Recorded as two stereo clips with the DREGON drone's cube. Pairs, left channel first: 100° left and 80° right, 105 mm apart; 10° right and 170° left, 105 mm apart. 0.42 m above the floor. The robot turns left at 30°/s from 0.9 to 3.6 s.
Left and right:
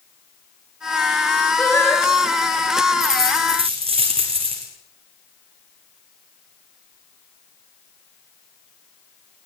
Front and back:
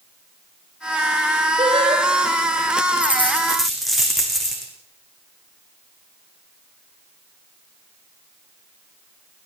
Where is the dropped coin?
85° right, 5 m; by 4.7 s 100° right, 5 m.